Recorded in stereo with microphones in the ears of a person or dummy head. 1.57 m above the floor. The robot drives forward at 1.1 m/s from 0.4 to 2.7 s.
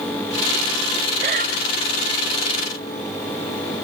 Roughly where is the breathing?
Right.